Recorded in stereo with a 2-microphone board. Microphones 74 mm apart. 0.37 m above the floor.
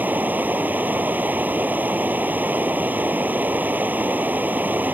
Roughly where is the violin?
No violin in this recording.